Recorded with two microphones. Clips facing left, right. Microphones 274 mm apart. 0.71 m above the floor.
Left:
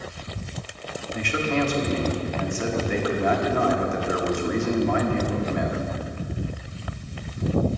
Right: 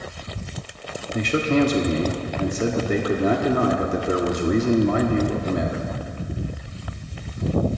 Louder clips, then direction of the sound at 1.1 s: Right 6 dB; 45° right (ahead or behind).